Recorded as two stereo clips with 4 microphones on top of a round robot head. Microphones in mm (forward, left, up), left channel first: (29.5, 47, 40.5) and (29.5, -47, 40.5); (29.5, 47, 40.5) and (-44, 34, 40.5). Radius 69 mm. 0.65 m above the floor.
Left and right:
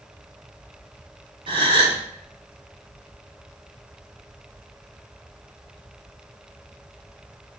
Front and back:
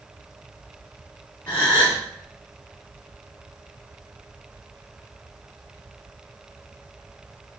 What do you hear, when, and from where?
1.5 s a gasp: 60° right, 2.5 m